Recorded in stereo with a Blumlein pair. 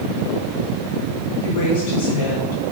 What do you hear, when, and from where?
1.4 s a woman speaking: 35° left, 4 m; by 2.6 s 45° left, 5 m